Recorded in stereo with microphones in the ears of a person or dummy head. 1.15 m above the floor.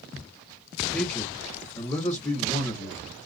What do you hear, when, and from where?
0.9 s a man speaking: 10° left (ahead or behind), 2.5 m